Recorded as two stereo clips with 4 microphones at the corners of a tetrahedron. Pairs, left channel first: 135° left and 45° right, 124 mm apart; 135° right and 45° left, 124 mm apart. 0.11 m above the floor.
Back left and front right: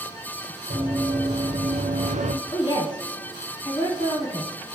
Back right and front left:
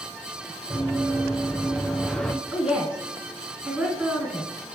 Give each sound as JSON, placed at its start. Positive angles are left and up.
{"t": 0.7, "sound": "running footsteps", "azimuth_deg": -40, "distance_m": 1.9}
{"t": 2.5, "sound": "a woman speaking", "azimuth_deg": 120, "distance_m": 1.4}